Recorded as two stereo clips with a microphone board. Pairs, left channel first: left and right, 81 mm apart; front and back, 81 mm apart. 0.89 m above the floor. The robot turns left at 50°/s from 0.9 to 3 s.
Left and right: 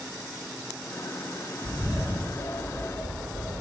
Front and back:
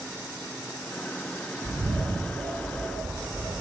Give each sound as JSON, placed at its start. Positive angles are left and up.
{"t": 1.6, "sound": "a bird", "azimuth_deg": 175, "distance_m": 0.6}